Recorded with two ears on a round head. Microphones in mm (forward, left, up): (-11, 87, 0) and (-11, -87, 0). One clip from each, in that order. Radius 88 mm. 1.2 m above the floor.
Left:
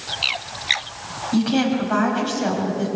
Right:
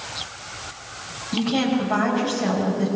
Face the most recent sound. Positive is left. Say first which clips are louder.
# left 1 dB
turn(degrees=40)  # may be behind; listen again after turning